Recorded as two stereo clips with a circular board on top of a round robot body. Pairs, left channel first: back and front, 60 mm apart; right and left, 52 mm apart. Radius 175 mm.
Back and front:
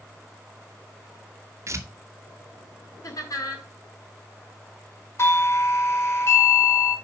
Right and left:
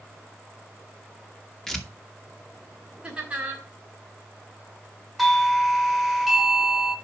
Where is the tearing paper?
10° right, 1.7 m.